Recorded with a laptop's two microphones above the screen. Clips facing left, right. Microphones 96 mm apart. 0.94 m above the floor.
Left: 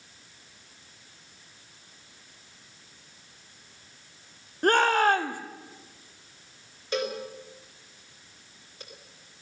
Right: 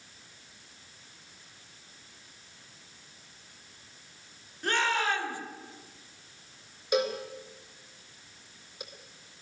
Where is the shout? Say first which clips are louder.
Left 8 dB; 50° left (ahead or behind), 2.5 m.